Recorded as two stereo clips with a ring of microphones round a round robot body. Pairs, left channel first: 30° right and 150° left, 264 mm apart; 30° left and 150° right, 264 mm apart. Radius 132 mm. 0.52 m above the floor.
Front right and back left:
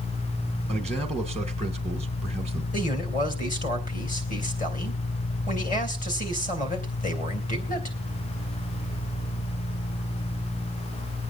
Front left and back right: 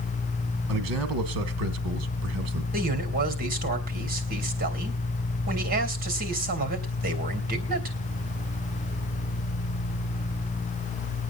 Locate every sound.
0.7 s a man speaking: 120° right, 1.5 m
2.7 s a man speaking: 90° right, 3 m